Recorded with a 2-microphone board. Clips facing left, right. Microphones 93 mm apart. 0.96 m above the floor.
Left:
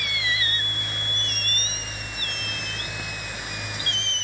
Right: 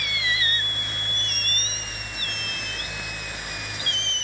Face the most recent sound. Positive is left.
No sound to turn to.